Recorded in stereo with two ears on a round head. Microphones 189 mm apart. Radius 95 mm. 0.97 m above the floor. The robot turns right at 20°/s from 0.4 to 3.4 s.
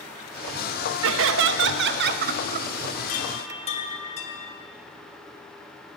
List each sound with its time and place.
1.0 s laughter: 75° right, 0.8 m; by 2.7 s 40° right, 0.8 m
3.1 s a chime: 35° left (ahead or behind), 1.5 m; by 4.6 s 30° left (ahead or behind), 1.5 m